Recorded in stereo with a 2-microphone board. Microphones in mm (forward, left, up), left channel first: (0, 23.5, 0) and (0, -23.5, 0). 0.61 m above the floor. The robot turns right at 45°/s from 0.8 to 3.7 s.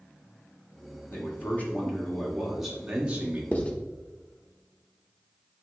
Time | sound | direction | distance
1.1 | a man speaking | 120° left | 1.5 m
3.5 | writing | 30° left (ahead or behind) | 0.9 m